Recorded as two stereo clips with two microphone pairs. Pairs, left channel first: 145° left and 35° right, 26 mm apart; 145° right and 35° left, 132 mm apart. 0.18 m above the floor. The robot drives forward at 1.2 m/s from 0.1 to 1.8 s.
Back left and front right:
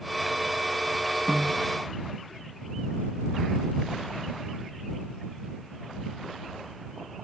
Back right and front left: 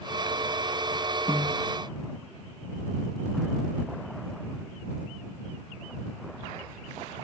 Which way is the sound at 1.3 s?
160° right.